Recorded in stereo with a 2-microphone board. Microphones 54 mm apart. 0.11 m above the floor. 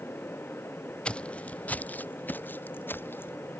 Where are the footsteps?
20° left (ahead or behind); by 3.4 s 45° left (ahead or behind).